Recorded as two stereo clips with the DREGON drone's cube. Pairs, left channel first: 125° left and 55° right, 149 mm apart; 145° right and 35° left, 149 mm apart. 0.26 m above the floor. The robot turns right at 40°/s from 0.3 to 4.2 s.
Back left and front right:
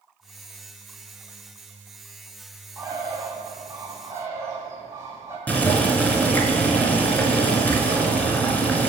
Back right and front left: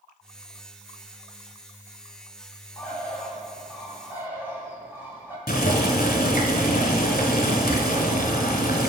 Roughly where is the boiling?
Behind right.